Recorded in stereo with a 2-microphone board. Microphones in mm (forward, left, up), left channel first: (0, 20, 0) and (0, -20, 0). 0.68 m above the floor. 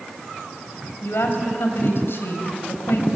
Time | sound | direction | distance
1.0 | a woman speaking | 65° left (ahead or behind) | 3.5 m